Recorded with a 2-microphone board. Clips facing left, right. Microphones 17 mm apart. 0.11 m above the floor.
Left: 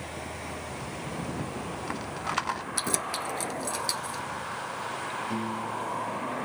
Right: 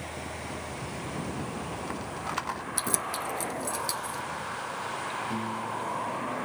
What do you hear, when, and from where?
0.7 s a rattle: 20° left (ahead or behind)
2.8 s keys jangling: 20° left (ahead or behind)
5.3 s a piano: 55° left (ahead or behind)